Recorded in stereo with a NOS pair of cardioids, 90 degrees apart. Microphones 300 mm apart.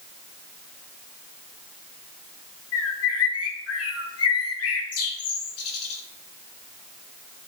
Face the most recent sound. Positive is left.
turn(degrees=55)